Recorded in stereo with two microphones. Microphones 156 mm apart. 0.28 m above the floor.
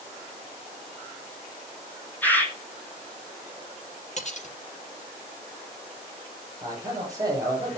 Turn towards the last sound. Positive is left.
turn(degrees=-25)  # may be behind; listen again after turning